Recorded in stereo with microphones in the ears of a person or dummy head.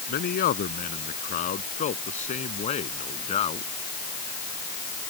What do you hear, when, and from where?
0.1 s a man speaking: 50° left (ahead or behind); by 3.7 s 35° left (ahead or behind)